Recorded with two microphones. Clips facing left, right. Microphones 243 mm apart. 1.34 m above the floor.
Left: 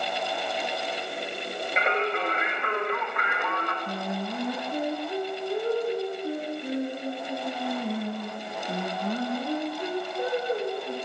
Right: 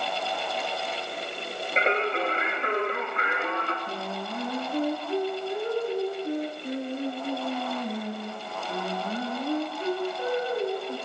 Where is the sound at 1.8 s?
30° right (ahead or behind), 3 m.